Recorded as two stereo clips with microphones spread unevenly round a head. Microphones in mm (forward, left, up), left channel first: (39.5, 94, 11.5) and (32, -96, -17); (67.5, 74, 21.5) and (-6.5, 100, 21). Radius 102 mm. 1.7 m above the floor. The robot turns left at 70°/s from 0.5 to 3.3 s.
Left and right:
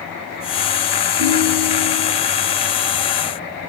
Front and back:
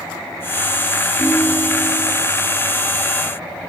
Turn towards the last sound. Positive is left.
turn(degrees=115)